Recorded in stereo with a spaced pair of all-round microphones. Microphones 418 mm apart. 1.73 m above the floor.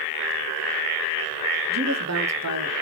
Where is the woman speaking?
40° right (ahead or behind), 0.8 m.